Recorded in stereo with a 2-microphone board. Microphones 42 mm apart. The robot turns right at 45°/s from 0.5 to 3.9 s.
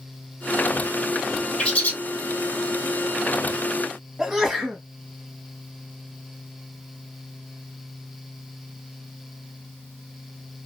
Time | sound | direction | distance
1.6 | a bird | 25° left (ahead or behind) | 1.0 m
4.2 | a sneeze | 10° right (ahead or behind) | 1.2 m